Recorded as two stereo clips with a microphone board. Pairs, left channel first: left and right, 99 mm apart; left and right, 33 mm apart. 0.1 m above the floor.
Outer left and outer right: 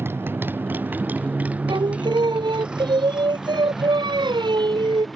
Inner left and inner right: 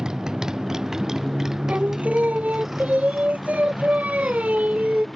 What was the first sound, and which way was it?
A motorcycle, 25° right (ahead or behind).